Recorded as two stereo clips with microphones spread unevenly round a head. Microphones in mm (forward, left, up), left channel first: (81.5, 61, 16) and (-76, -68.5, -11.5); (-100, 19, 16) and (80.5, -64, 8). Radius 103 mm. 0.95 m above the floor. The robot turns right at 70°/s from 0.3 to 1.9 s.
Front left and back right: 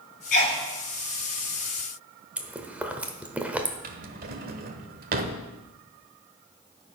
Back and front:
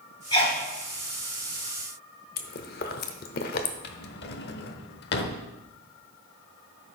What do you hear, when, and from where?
0.3 s a sneeze: 80° left, 5.5 m; by 0.6 s 105° left, 5.5 m
2.4 s chewing: 130° left, 0.9 m
3.8 s a drawer: 175° left, 1.0 m